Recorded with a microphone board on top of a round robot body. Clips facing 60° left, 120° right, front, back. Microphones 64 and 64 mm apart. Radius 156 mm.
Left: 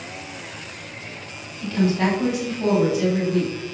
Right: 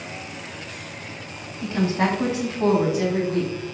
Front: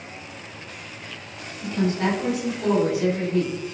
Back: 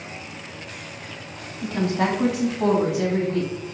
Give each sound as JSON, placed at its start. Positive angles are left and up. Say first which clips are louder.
{"t": 1.6, "sound": "a woman speaking", "louder": "left 1 dB, back 1 dB", "azimuth_deg": 175, "distance_m": 4.5}